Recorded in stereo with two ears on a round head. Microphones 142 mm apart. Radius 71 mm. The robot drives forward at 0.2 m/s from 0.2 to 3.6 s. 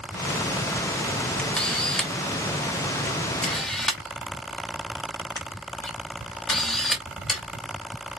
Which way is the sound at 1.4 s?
5° left (ahead or behind).